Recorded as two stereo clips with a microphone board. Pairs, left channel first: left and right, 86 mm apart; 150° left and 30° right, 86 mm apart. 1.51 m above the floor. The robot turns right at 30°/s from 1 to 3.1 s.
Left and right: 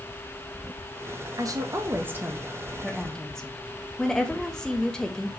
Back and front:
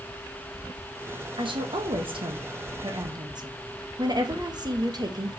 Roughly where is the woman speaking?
Ahead right.